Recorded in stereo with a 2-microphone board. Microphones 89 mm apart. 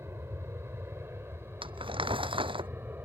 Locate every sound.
0.0 s an aircraft: 25° right (ahead or behind); by 3.1 s 20° right (ahead or behind)
1.6 s crumpling: 70° right (ahead or behind)